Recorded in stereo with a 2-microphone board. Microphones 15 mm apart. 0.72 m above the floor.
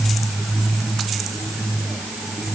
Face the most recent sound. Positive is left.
No sound to turn to.